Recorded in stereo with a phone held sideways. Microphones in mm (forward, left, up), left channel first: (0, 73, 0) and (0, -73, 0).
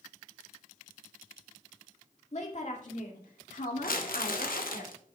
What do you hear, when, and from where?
2.3 s a woman speaking: 50° left (ahead or behind), 1.9 m; by 4.8 s 75° left (ahead or behind), 2.5 m
3.8 s crumpling: 75° left (ahead or behind), 1.2 m